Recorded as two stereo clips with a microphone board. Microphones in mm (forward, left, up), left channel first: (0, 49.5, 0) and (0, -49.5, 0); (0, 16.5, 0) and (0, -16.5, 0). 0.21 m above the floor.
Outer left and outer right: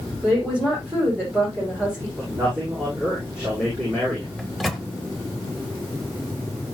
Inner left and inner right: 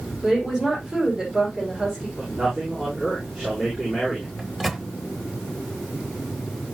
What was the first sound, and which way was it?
A woman speaking, 15° right (ahead or behind).